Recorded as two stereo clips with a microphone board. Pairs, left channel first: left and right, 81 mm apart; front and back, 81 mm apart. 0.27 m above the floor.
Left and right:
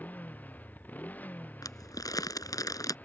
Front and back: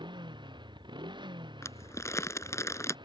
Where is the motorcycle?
160° left.